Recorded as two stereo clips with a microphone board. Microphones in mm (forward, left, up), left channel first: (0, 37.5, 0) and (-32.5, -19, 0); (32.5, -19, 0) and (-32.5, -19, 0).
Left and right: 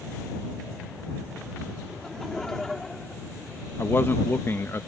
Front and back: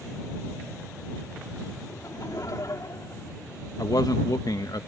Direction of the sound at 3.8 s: 5° left.